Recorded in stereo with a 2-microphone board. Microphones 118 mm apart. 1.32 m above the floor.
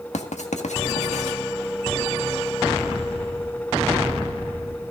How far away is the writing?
About 1.6 m.